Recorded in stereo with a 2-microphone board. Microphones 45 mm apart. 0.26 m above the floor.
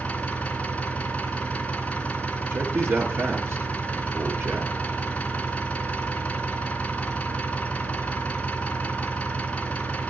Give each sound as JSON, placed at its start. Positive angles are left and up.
{"t": 0.0, "sound": "an engine running", "side_deg": 25, "distance_m": 2.5}
{"t": 2.5, "sound": "a man speaking", "side_deg": -65, "distance_m": 3.5}